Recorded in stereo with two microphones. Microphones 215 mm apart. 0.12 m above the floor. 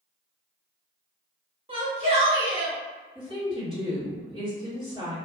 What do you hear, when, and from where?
1.7 s a shout: 25° right (ahead or behind), 1.3 m; by 2.8 s 30° right (ahead or behind), 1.6 m
3.1 s a woman speaking: 25° right (ahead or behind), 2.0 m